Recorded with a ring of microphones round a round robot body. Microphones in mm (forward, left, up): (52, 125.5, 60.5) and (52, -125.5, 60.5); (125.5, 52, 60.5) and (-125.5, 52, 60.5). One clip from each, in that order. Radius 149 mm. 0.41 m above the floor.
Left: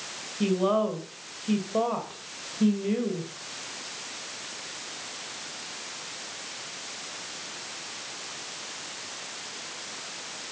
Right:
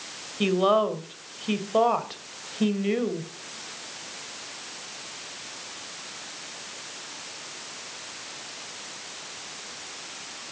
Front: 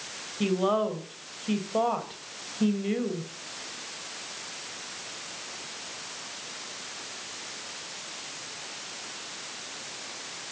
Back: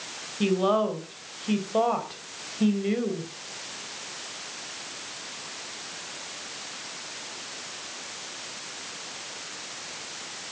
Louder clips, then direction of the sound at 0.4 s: Right 4 dB, back 2 dB; 95° right.